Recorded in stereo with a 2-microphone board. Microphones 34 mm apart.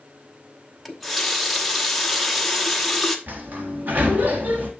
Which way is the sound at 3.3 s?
55° right (ahead or behind).